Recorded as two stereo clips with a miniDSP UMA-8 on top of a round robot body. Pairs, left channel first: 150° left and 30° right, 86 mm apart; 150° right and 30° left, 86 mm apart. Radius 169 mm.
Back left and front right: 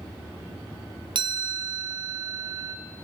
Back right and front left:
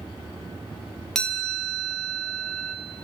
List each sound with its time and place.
1.1 s a chime: 65° right, 1.5 m